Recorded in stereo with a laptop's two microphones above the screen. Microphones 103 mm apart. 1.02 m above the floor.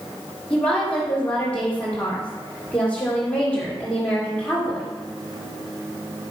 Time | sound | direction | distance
0.5 | a woman speaking | 10° left (ahead or behind) | 2.5 m